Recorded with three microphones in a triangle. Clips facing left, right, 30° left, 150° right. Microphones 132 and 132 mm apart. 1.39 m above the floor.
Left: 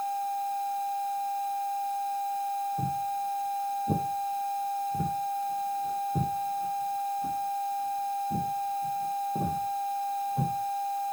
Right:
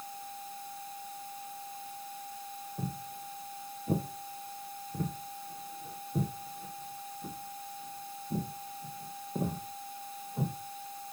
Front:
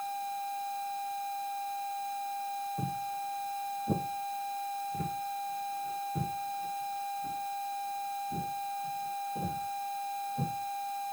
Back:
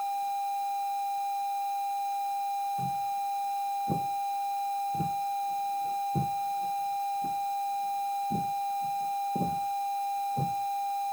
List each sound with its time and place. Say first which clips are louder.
2.8 s footsteps: left 11 dB, back 5 dB; 5° left, 1.6 m; by 10.5 s 175° right, 4 m